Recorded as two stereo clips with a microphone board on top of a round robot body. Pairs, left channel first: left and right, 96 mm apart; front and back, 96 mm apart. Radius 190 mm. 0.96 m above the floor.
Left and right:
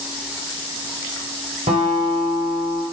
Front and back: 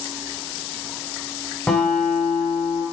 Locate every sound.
1.7 s a guitar: 80° right, 0.8 m